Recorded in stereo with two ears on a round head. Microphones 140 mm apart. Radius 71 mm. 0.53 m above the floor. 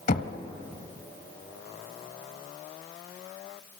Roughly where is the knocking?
Left.